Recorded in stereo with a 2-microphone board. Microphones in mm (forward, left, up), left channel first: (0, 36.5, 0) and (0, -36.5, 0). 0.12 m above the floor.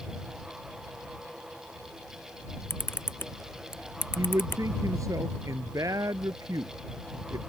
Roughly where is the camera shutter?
Left.